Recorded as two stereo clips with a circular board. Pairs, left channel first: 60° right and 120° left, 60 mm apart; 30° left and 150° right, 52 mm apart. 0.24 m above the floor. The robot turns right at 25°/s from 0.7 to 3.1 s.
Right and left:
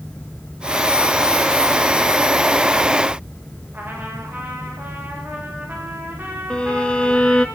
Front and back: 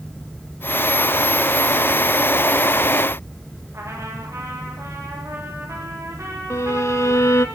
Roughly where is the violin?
Ahead.